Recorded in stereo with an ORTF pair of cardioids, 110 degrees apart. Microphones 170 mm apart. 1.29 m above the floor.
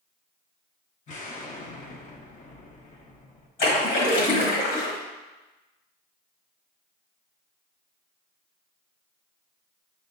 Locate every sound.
1.1 s an explosion: 45° left, 1.0 m
3.6 s a splash: 60° left, 1.7 m